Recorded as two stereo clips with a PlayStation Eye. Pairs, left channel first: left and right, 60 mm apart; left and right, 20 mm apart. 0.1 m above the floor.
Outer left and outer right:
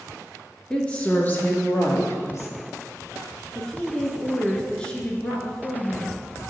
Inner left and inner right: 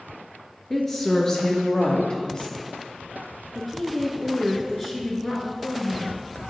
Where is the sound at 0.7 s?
15° left (ahead or behind), 1.2 m; by 2.6 s 55° left (ahead or behind), 2 m.